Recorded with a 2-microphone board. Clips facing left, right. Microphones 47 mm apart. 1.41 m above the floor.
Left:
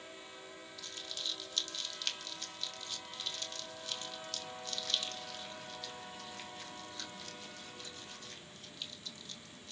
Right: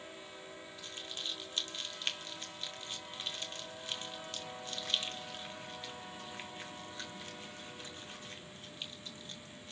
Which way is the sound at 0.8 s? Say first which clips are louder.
Even; 25° right (ahead or behind).